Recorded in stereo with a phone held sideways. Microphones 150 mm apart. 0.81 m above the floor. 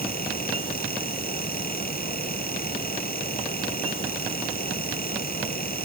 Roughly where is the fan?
Left.